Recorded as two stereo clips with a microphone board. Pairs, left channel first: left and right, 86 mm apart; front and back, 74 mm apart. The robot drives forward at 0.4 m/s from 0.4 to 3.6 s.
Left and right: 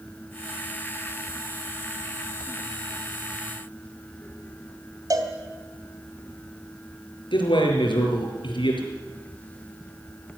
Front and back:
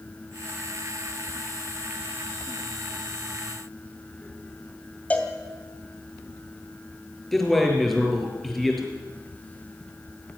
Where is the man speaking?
90° left, 5 m.